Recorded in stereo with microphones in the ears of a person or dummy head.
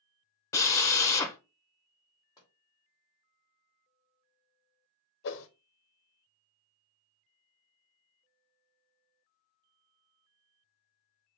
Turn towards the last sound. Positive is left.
turn(degrees=65)  # may be behind; listen again after turning